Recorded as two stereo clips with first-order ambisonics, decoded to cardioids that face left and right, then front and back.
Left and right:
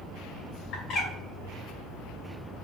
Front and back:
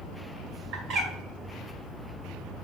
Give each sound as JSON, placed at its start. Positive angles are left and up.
{"t": 0.7, "sound": "a bird", "azimuth_deg": 145, "distance_m": 2.0}